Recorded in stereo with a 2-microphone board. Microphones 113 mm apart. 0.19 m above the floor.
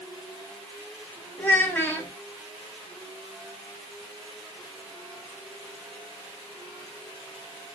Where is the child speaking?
20° left (ahead or behind), 0.6 m.